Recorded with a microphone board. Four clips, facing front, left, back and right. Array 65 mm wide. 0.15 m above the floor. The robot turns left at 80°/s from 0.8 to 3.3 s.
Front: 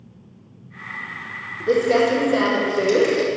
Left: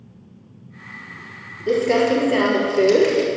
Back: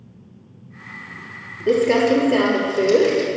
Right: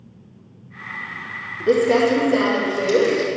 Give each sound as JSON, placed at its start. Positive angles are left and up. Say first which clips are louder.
{"t": 1.7, "sound": "crumpling", "louder": "right 1 dB, back 1 dB", "azimuth_deg": 180, "distance_m": 3.5}